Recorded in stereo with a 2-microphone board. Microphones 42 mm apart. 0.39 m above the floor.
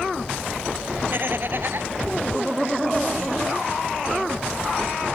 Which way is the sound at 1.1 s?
55° right (ahead or behind).